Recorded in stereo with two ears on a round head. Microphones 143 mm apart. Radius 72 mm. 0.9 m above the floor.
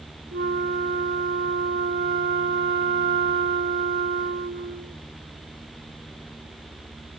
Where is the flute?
65° right (ahead or behind), 1.0 m.